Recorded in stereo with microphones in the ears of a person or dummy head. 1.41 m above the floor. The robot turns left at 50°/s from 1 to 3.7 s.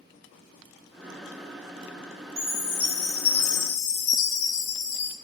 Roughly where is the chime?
Behind.